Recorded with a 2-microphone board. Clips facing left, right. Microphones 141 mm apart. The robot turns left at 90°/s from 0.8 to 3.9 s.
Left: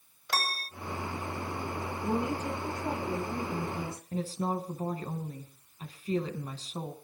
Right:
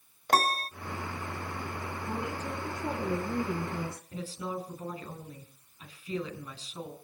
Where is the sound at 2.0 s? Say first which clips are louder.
Left 6 dB; 45° left, 5.5 m; by 4.0 s 120° right, 5.5 m.